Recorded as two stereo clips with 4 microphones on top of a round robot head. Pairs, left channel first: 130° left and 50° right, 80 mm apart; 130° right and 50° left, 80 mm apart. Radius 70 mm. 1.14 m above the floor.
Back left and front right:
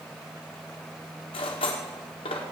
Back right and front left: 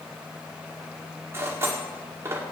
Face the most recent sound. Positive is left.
turn(degrees=115)